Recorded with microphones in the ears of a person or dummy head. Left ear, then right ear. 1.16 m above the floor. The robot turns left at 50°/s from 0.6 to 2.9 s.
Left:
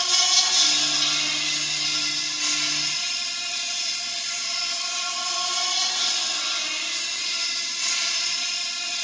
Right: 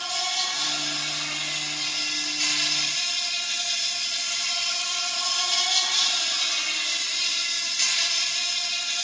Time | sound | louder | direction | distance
0.0 | an insect | left 6 dB | 65° left | 1.0 m